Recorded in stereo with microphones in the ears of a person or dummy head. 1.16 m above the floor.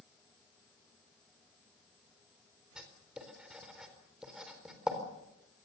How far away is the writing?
About 4 m.